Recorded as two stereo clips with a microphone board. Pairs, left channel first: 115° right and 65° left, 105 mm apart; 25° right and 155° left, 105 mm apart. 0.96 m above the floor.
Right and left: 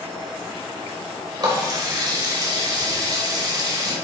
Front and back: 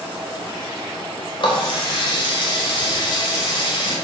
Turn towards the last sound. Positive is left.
turn(degrees=20)